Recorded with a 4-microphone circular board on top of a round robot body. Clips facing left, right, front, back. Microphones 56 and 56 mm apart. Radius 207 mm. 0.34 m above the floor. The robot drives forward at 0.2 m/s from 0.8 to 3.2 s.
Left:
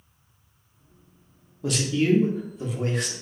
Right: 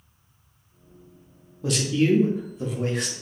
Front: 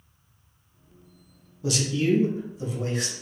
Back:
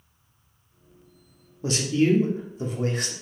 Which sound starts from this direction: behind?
A man speaking, at 1.6 s.